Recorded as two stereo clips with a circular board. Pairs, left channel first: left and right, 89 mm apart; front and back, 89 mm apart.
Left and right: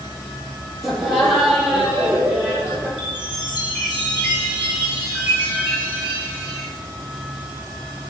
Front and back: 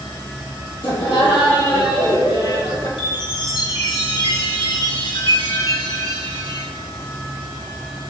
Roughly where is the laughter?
Ahead.